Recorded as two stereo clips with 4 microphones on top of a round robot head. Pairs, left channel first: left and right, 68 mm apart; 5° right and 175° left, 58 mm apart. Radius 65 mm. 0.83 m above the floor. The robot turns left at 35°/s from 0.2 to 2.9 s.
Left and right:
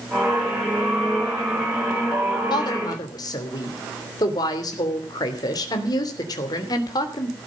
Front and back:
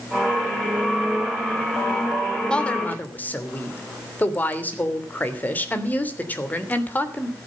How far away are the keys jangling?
I don't hear keys jangling.